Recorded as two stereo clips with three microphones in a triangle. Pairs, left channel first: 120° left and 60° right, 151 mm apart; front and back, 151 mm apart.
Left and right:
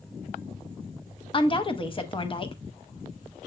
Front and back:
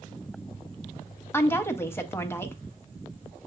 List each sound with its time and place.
1.3 s a woman speaking: 70° left, 0.6 m